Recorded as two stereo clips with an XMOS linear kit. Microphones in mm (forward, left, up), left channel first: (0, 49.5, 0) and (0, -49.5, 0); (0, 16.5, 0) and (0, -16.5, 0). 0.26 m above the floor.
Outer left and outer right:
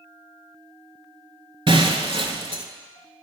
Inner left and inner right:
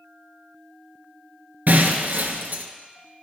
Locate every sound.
1.7 s breaking glass: 60° right (ahead or behind), 0.7 m